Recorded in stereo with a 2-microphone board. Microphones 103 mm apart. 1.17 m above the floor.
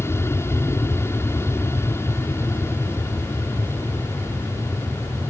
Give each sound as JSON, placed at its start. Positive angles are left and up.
{"t": 0.0, "sound": "an aircraft", "side_deg": 25}